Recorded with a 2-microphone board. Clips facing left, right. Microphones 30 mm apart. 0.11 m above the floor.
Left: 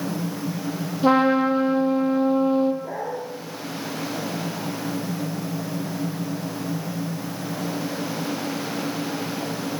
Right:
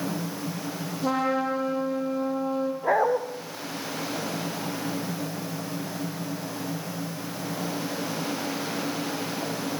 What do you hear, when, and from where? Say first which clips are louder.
1.0 s a trumpet: left 8 dB; 30° left (ahead or behind), 3.5 m
2.8 s a dog barking: right 7 dB; 65° right (ahead or behind), 3.5 m